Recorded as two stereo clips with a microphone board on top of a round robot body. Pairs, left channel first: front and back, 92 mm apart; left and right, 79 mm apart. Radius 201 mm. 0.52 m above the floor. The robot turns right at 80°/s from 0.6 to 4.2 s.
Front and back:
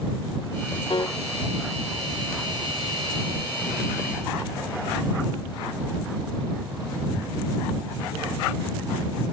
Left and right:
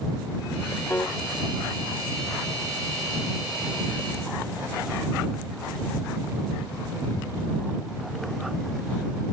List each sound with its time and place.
0.9 s a piano: 30° left; by 1.2 s 50° left